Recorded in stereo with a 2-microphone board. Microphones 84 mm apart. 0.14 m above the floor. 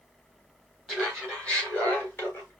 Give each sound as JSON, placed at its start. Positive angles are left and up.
{"t": 0.9, "sound": "laughter", "side_deg": 0, "distance_m": 2.5}